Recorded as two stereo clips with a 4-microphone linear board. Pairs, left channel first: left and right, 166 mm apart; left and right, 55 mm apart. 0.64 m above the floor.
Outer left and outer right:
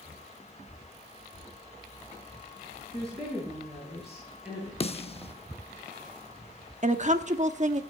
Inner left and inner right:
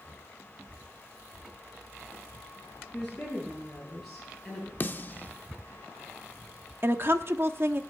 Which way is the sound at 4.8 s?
35° left (ahead or behind).